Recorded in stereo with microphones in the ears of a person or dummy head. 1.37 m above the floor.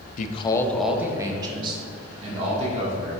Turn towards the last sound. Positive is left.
turn(degrees=-40)  # may be behind; listen again after turning